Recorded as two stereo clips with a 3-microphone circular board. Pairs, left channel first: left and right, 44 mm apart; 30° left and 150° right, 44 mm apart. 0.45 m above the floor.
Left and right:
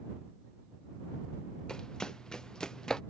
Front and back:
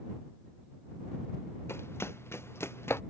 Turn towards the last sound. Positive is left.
turn(degrees=15)